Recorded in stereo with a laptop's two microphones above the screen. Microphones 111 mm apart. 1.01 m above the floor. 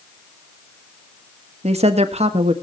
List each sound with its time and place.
1.6 s a woman speaking: 70° right (ahead or behind), 1.4 m